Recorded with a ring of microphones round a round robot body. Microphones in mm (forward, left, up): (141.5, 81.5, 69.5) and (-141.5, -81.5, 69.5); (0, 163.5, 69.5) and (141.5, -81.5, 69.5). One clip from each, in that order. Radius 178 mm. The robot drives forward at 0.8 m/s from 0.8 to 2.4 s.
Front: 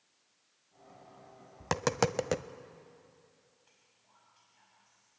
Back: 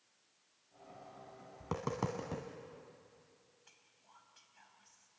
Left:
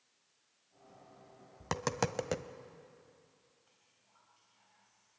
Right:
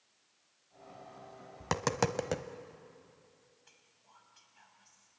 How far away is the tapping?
About 1.2 m.